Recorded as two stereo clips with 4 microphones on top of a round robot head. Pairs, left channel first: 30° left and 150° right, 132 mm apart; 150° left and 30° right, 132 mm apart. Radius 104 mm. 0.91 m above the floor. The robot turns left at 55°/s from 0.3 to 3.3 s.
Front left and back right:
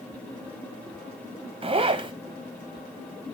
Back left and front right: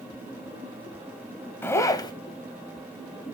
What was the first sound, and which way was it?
A zipper, 145° right.